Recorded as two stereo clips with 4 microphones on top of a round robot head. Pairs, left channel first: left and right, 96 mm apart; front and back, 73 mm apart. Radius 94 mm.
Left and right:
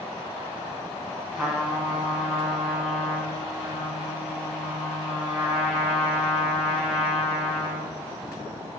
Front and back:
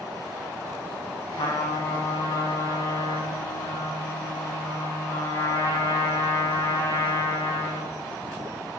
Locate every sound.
1.3 s a trumpet: straight ahead, 6.5 m